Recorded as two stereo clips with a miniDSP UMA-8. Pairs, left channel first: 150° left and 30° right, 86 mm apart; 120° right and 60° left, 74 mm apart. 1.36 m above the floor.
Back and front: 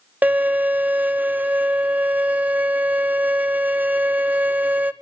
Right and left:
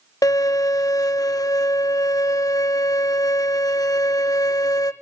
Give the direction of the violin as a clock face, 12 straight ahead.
3 o'clock.